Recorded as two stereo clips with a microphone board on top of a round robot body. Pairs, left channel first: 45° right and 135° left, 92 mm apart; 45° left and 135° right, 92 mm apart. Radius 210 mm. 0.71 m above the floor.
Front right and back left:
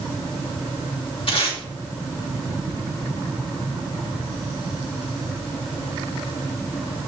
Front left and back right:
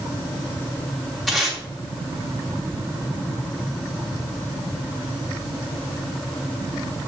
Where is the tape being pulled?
45° right, 3 m.